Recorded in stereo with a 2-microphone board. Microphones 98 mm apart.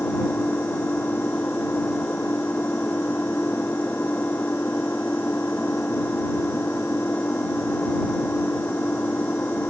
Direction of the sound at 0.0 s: 20° left (ahead or behind).